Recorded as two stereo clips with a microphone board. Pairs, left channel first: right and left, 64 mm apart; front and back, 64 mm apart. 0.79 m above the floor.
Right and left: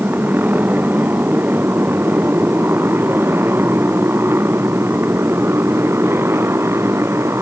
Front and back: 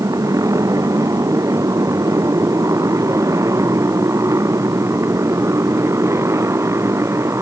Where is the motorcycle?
150° left; by 7.4 s 135° left.